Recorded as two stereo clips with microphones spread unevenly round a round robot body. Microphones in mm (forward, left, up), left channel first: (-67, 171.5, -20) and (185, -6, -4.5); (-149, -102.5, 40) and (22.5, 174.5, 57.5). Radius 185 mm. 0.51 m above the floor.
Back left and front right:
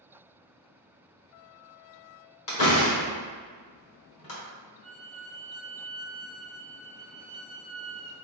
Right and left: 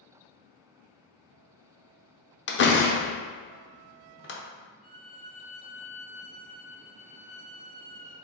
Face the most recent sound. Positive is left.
turn(degrees=-5)